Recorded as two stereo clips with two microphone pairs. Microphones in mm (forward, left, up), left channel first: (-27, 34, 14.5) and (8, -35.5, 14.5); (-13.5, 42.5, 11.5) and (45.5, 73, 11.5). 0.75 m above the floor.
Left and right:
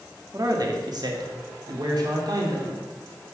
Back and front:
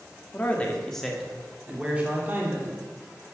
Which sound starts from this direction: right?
A man speaking, at 0.3 s.